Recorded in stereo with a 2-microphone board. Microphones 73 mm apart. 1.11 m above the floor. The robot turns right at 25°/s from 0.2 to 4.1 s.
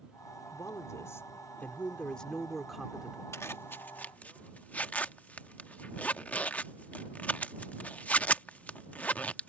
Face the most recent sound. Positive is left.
turn(degrees=20)  # may be behind; listen again after turning